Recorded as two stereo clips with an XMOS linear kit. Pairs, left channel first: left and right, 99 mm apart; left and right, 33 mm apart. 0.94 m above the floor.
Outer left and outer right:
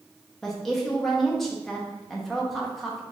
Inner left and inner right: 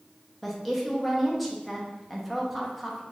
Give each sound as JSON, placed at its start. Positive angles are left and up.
{"t": 0.4, "sound": "a woman speaking", "side_deg": 0, "distance_m": 0.6}